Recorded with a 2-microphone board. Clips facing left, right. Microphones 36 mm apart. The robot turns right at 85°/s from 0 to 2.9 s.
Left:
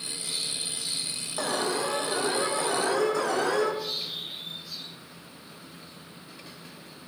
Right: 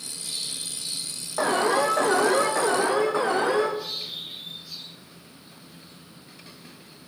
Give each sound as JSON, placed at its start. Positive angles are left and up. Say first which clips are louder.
{"t": 1.4, "sound": "an alarm", "louder": "right 7 dB", "azimuth_deg": -160, "distance_m": 4.5}